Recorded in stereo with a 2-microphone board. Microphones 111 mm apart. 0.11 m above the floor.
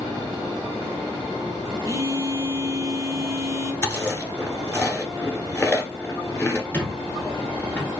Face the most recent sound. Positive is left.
turn(degrees=20)  # may be behind; listen again after turning